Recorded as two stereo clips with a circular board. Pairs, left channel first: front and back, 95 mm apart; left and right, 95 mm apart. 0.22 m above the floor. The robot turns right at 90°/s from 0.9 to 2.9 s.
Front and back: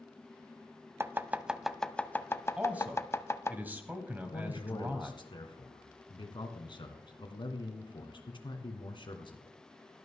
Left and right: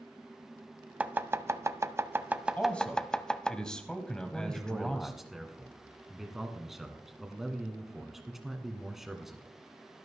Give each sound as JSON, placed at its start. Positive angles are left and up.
{"t": 1.0, "sound": "chopping", "azimuth_deg": -155, "distance_m": 0.6}
{"t": 2.6, "sound": "a man speaking", "azimuth_deg": 125, "distance_m": 1.4}
{"t": 4.1, "sound": "a man speaking", "azimuth_deg": -5, "distance_m": 1.8}